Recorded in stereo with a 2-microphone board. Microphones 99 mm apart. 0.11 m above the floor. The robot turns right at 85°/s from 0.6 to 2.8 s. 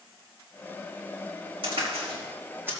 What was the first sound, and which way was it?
A crack, 65° right (ahead or behind).